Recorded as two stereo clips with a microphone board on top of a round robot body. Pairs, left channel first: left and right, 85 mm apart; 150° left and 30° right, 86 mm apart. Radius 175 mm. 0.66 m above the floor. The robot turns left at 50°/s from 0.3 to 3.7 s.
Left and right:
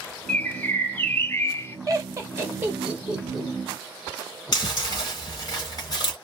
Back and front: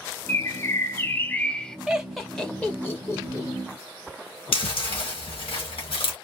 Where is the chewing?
135° left, 1.6 m.